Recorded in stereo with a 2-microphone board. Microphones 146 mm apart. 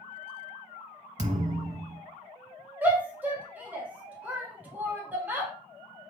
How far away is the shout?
About 1.4 m.